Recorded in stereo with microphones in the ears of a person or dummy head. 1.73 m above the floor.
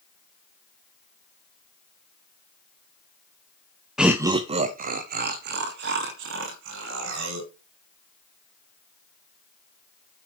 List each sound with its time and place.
4.0 s laughter: centre (ahead or behind), 0.6 m; by 7.5 s 75° right (ahead or behind), 2.5 m